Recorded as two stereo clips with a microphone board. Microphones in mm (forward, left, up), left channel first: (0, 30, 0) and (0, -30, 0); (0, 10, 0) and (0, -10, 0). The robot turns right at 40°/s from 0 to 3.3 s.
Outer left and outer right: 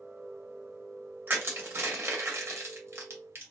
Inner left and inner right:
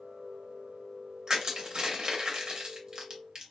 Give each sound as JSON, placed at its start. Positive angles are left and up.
{"t": 1.3, "sound": "crushing", "side_deg": -35, "distance_m": 0.9}